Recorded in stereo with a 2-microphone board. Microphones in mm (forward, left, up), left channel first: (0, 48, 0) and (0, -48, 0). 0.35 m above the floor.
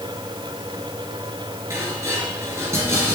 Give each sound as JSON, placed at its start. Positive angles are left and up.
{"t": 1.7, "sound": "dishes clattering", "side_deg": -30, "distance_m": 4.5}